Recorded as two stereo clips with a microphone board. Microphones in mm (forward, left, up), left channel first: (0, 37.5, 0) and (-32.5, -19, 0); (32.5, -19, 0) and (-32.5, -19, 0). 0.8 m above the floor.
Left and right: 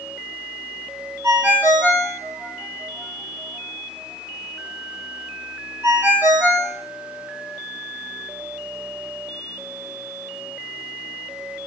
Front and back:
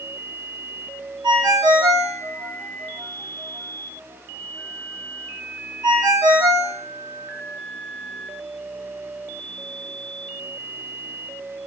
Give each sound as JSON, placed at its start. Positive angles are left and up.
{"t": 1.2, "sound": "a ringtone", "azimuth_deg": 180, "distance_m": 1.0}